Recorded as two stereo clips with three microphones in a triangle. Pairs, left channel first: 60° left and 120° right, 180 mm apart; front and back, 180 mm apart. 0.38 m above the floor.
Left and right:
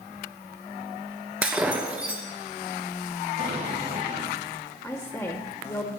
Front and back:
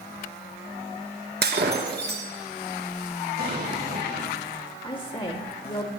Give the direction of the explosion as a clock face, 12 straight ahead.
5 o'clock.